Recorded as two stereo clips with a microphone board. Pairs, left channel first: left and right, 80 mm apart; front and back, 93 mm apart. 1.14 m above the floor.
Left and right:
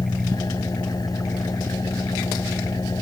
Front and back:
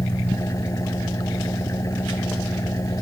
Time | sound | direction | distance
0.0 | an engine running | 55° left | ?